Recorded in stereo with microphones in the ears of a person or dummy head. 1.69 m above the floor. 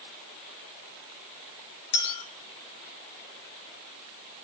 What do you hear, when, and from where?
1.9 s a clink: 30° left (ahead or behind), 2 m